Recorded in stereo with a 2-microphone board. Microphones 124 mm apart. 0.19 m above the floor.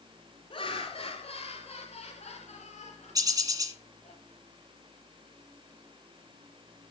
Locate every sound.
0.5 s laughter: 45° left (ahead or behind), 3.5 m; by 4.2 s 70° left (ahead or behind), 5 m
3.1 s a bird: 30° right (ahead or behind), 1.7 m